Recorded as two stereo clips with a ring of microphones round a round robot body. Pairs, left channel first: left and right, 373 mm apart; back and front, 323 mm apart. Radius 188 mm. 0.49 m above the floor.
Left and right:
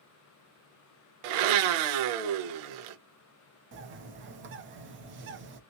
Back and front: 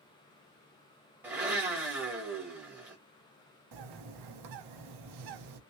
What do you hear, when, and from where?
1.2 s a blender: 85° right, 0.7 m
3.7 s a bird: 30° right, 0.6 m